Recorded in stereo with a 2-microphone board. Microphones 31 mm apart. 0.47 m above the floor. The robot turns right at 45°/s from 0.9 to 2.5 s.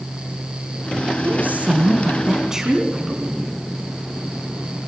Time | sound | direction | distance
1.2 | a woman speaking | 75° right | 4 m